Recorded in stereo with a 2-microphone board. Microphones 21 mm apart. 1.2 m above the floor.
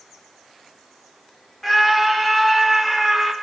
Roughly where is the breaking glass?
I don't hear breaking glass.